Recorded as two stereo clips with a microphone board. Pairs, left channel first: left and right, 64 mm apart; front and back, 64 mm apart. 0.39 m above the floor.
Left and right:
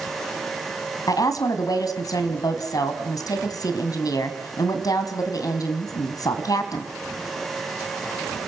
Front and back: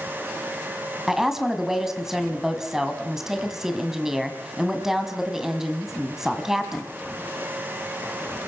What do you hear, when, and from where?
1.1 s a woman speaking: 100° left, 2.5 m